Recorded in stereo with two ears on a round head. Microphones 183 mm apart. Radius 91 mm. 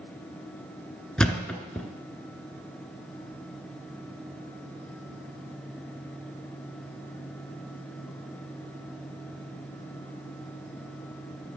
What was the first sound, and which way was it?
A thud, 5° left (ahead or behind).